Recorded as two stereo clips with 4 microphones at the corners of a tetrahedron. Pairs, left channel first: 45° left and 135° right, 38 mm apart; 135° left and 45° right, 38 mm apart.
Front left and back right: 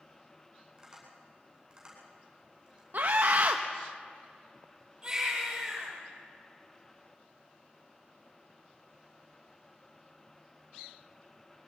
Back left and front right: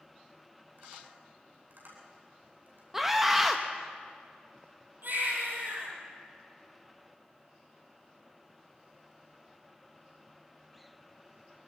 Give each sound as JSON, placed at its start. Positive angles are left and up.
{"t": 0.8, "sound": "tapping", "azimuth_deg": -70, "distance_m": 9.5}
{"t": 2.9, "sound": "a scream", "azimuth_deg": -125, "distance_m": 0.9}
{"t": 5.0, "sound": "a baby crying", "azimuth_deg": -65, "distance_m": 10.0}